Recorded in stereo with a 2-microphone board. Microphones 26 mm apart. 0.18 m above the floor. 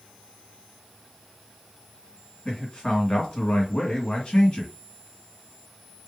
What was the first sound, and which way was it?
A man speaking, 40° left (ahead or behind).